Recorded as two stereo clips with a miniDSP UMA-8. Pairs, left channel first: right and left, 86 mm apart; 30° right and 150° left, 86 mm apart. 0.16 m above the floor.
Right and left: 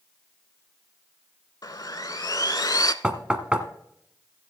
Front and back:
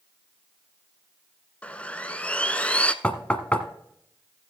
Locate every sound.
1.6 s sawing: 100° right, 0.6 m
3.0 s knocking: 30° left, 1.1 m